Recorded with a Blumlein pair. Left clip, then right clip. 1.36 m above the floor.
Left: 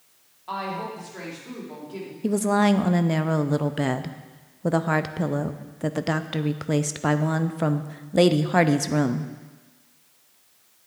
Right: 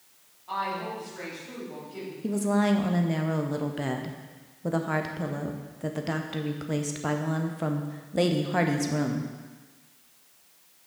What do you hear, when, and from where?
0.5 s a woman speaking: 65° left, 3 m
2.2 s a woman speaking: 20° left, 0.5 m